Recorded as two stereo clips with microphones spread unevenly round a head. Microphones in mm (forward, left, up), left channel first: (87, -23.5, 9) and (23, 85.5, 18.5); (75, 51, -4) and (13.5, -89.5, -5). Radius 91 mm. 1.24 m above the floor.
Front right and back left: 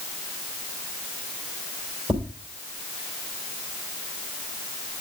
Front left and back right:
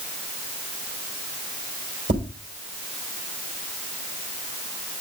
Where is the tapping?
170° right, 3.5 m.